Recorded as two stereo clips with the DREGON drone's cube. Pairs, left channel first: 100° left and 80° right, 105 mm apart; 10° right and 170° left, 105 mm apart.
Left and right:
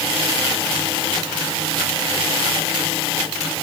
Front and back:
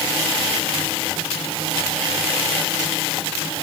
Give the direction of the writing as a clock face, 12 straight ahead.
No writing in this recording.